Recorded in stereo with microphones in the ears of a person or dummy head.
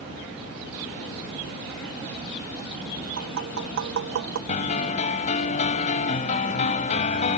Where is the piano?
35° left (ahead or behind).